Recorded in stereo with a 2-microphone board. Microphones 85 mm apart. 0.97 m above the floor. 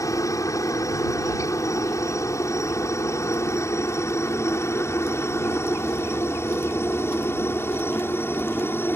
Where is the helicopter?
40° left (ahead or behind); by 9.0 s 25° left (ahead or behind).